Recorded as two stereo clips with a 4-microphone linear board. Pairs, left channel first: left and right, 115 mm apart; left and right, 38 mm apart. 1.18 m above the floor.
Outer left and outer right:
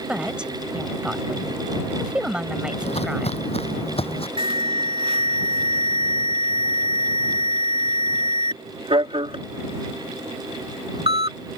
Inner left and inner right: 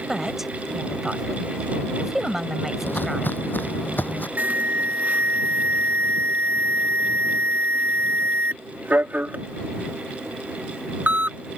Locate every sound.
0.1 s a woman speaking: 10° right (ahead or behind)
2.8 s footsteps: 65° left (ahead or behind); by 4.3 s 55° left (ahead or behind)
4.4 s an alarm: 55° right (ahead or behind)